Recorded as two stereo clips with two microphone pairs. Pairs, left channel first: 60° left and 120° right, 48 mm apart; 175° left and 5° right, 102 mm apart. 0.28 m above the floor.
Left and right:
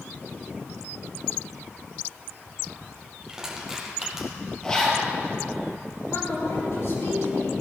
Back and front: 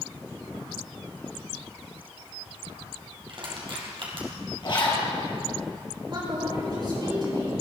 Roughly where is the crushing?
Ahead right.